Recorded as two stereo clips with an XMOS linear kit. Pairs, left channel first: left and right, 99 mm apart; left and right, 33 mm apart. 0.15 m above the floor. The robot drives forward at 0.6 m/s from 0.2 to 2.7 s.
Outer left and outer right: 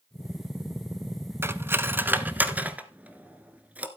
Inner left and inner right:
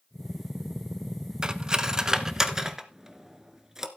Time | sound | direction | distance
1.4 | cutlery clinking | 25° right (ahead or behind) | 0.7 m